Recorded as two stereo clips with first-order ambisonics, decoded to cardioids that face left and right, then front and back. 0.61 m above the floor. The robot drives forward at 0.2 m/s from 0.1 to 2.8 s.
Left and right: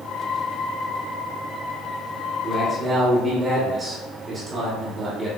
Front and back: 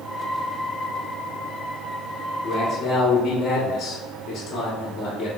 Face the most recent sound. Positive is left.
turn(degrees=-40)